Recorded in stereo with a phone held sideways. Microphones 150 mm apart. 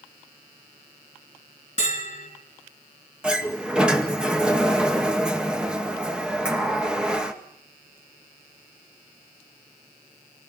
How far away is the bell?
About 4.5 m.